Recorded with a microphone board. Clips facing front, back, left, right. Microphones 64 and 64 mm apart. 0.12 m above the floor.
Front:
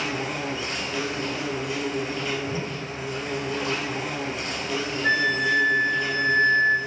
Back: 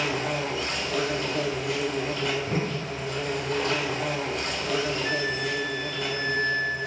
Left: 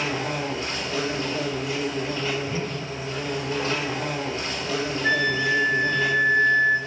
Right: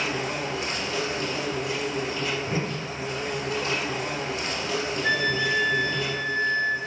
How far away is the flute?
About 1.0 m.